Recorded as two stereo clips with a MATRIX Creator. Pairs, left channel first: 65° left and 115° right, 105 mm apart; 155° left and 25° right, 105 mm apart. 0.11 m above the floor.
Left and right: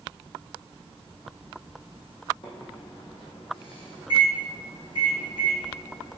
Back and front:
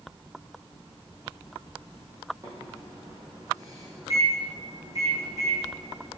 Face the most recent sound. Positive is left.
turn(degrees=30)